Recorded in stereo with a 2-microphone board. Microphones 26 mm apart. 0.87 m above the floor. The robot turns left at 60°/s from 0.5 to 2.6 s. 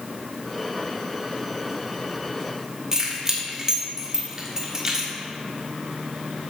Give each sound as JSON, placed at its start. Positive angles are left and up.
{"t": 2.9, "sound": "keys jangling", "side_deg": -20, "distance_m": 1.6}